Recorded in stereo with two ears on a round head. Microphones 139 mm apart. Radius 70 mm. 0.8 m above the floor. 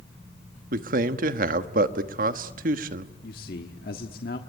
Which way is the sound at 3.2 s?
65° left (ahead or behind).